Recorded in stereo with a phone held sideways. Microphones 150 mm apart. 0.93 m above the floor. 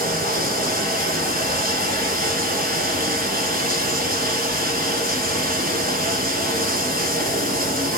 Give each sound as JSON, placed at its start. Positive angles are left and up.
{"t": 0.0, "sound": "running water", "side_deg": -70, "distance_m": 3.0}